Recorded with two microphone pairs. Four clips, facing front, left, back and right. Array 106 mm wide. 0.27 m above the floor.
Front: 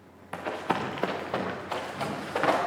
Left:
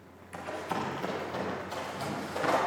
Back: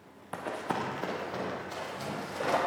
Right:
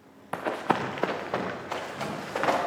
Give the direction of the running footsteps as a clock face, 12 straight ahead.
3 o'clock.